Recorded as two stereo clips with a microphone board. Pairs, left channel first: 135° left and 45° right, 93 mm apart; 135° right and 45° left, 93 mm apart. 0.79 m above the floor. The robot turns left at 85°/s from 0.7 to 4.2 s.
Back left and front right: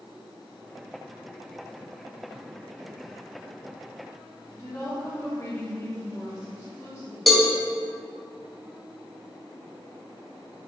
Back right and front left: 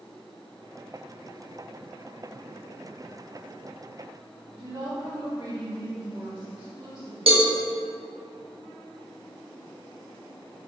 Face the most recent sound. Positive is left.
turn(degrees=45)